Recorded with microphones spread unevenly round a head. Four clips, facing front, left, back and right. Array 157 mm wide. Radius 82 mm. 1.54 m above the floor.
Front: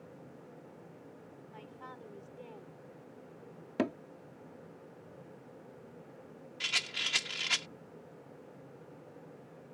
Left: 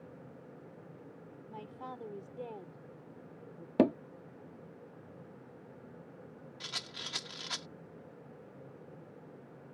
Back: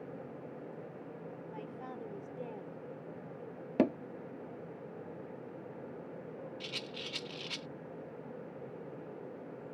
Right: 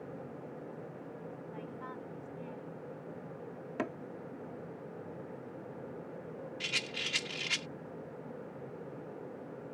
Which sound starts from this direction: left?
Hammering, at 3.8 s.